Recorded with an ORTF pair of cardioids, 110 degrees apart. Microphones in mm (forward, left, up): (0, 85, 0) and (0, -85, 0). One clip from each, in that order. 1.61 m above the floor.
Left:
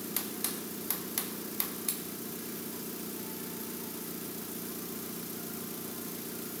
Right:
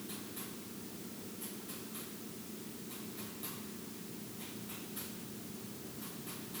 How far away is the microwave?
I don't hear a microwave.